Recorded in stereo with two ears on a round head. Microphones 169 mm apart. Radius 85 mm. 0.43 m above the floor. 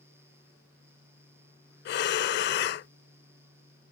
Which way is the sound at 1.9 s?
60° left (ahead or behind).